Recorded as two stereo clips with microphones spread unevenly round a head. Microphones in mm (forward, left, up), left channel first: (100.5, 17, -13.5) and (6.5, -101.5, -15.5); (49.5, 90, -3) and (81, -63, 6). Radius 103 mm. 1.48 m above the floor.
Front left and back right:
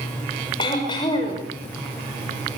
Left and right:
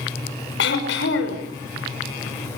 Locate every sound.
0.6 s throat clearing: 120° left, 5.5 m